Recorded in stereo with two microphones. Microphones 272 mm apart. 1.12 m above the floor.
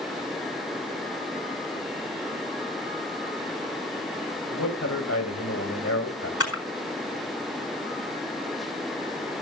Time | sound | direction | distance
4.5 | a man speaking | 60° left (ahead or behind) | 4.5 m
6.4 | a camera shutter | 60° left (ahead or behind) | 4 m